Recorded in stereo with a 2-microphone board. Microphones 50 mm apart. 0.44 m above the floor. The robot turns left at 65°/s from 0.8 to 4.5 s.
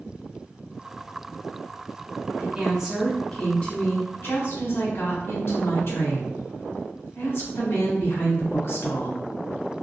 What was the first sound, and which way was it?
A woman speaking, 135° right.